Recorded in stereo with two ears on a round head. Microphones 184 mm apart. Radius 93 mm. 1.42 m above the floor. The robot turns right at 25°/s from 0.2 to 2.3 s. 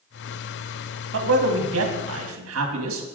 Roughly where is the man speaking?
Right.